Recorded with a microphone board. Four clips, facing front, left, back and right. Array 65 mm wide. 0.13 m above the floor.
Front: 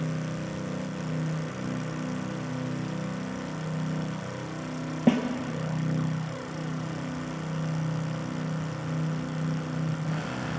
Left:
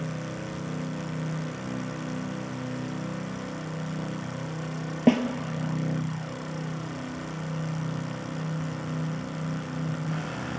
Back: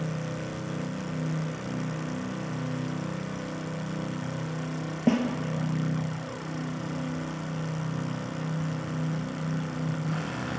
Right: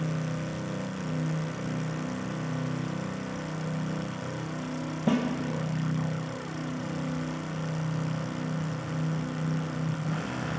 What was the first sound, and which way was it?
A snare drum, 75° left.